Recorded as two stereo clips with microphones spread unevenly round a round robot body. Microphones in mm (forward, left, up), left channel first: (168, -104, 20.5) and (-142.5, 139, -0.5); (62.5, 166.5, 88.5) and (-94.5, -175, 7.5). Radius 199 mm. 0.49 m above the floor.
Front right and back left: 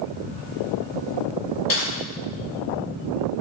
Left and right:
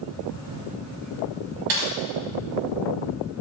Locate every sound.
1.7 s typing on a keyboard: 100° right, 1.8 m